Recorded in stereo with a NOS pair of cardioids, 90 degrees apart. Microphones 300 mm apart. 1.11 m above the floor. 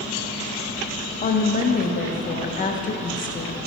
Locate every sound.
1.2 s a woman speaking: 25° left, 0.6 m